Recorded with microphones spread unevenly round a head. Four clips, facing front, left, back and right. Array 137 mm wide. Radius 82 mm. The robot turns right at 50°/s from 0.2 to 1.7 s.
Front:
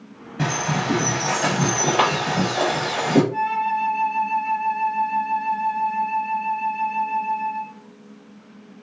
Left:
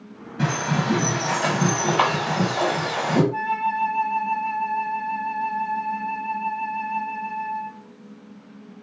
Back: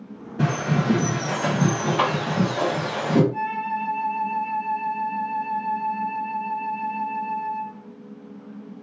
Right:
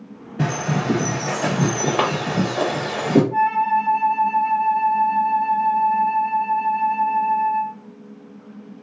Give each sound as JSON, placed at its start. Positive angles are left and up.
{"t": 0.4, "sound": "a bird", "azimuth_deg": -135, "distance_m": 1.8}
{"t": 3.3, "sound": "a flute", "azimuth_deg": -75, "distance_m": 2.0}